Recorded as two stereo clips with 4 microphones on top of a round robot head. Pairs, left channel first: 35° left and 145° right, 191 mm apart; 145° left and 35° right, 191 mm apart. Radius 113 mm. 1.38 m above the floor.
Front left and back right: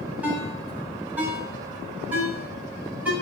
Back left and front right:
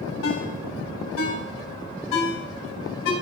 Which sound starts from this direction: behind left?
A ringtone, at 0.2 s.